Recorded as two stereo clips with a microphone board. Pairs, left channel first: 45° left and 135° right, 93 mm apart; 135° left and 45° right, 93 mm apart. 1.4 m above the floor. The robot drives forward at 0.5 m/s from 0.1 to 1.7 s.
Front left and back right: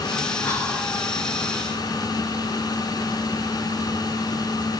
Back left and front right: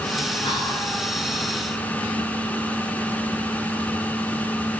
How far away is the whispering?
About 0.6 m.